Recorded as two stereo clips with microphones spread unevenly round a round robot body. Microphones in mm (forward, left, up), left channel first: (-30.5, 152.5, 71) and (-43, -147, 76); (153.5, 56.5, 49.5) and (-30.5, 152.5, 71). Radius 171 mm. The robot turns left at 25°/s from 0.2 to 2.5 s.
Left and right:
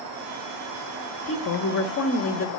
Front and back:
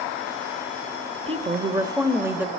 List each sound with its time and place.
1.3 s a woman speaking: 95° left, 1.3 m; by 2.5 s 65° left, 1.3 m